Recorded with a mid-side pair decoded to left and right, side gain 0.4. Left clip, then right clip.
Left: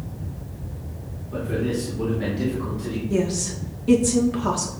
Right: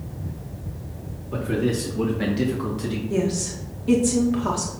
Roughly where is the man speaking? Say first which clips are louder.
Right 1 dB; ahead right.